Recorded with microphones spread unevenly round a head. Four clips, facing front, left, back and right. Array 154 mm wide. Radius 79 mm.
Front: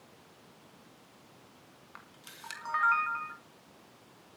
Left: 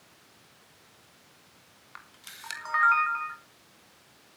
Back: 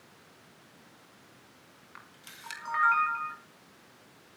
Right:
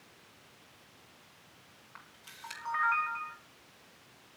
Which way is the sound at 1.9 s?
95° left.